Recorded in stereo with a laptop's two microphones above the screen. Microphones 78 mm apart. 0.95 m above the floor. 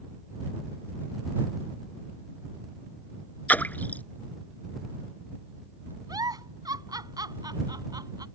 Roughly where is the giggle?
Right.